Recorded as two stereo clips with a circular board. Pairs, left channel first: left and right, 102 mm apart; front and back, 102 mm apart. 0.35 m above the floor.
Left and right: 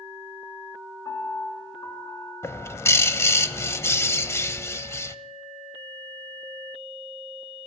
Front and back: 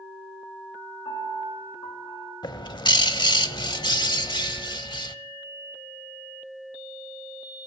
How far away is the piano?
About 3.5 m.